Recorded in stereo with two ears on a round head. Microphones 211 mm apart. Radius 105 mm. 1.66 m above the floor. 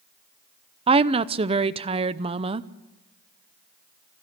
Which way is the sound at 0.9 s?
25° right (ahead or behind).